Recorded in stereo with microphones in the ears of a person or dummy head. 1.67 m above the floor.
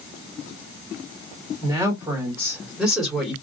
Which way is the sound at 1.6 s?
25° right (ahead or behind).